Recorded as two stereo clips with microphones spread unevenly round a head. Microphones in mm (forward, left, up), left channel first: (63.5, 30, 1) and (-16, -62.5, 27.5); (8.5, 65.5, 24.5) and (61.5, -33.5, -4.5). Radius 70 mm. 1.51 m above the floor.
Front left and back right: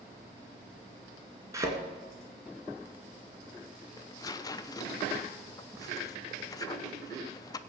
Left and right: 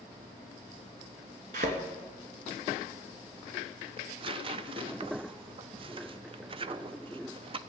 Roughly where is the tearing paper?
Ahead.